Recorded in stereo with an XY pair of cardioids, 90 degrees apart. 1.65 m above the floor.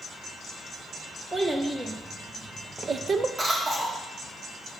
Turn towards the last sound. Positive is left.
turn(degrees=-45)